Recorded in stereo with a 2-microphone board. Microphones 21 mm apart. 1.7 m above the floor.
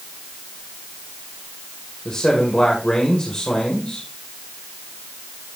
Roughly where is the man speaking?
Left.